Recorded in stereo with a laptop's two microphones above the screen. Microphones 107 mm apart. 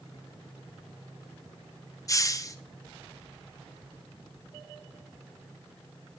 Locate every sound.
2.1 s a hiss: 30° left (ahead or behind), 0.6 m